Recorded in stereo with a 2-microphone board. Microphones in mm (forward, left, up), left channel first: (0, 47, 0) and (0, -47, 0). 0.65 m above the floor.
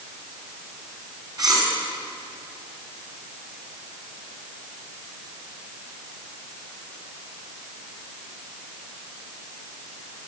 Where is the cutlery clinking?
40° right (ahead or behind), 4 m.